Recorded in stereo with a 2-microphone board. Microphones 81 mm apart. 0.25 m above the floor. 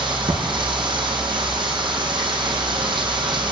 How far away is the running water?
About 3.5 m.